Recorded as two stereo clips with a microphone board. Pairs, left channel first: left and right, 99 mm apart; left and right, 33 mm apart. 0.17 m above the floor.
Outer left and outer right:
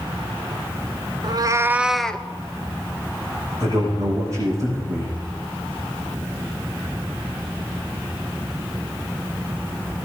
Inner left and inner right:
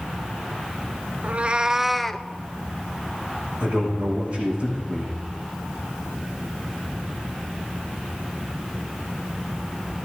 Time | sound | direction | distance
1.2 | a cat meowing | 55° right (ahead or behind) | 0.6 m
3.6 | a man speaking | 35° right (ahead or behind) | 7 m